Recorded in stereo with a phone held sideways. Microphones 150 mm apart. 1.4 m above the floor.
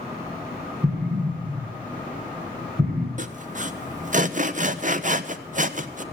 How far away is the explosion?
About 4 m.